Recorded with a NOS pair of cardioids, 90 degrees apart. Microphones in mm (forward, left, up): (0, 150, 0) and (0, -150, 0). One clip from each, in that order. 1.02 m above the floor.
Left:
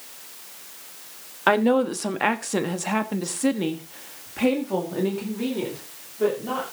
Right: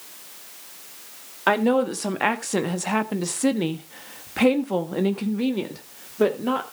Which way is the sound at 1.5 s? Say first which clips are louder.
Left 1 dB; 10° left.